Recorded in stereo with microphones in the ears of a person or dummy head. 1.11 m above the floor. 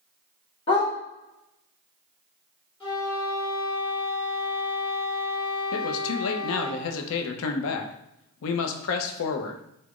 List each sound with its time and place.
0.7 s a dog barking: 30° left (ahead or behind), 1.1 m
2.8 s a flute: 25° left (ahead or behind), 1.3 m
5.7 s a man speaking: 70° left (ahead or behind), 0.5 m